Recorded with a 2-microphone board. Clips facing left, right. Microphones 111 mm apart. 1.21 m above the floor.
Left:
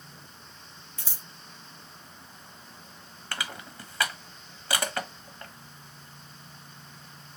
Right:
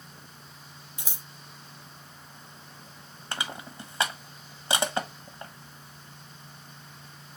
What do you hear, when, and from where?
1.0 s scissors: 15° right (ahead or behind), 0.8 m
3.3 s crushing: 20° right (ahead or behind), 0.9 m